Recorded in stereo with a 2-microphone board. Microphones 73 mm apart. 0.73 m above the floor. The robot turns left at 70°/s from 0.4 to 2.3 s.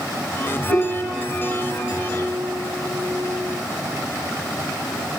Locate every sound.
0.7 s a piano: 10° right, 6 m; by 3.5 s 125° right, 6 m